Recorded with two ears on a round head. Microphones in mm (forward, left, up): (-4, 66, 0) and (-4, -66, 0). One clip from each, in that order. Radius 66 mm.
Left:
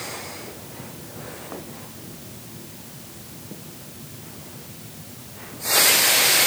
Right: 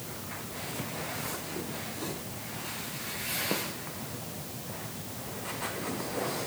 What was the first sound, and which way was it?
Only background noise.